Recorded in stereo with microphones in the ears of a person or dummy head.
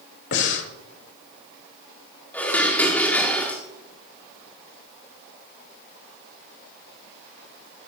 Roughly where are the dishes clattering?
Centre.